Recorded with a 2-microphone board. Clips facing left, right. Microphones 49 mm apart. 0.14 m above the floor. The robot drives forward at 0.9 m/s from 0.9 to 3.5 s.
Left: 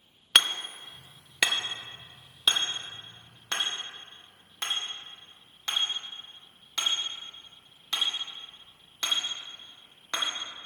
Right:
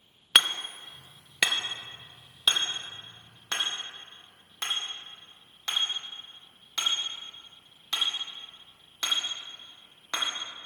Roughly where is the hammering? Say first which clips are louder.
Even; centre.